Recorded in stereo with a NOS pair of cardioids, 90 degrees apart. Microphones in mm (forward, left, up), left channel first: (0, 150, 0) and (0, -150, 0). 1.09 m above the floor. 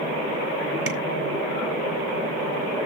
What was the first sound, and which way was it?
Tapping, 50° right.